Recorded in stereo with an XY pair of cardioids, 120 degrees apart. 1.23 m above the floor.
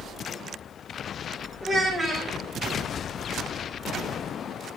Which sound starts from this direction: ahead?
A child speaking, at 1.6 s.